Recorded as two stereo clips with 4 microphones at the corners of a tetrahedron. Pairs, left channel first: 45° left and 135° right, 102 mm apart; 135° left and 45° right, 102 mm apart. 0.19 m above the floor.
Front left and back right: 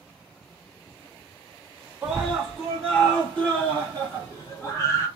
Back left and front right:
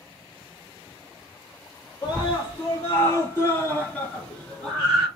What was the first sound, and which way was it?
A scream, 145° left.